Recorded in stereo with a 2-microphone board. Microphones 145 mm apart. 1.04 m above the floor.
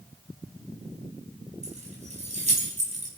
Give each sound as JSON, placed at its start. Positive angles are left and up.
{"t": 1.6, "sound": "keys jangling", "side_deg": -50, "distance_m": 5.0}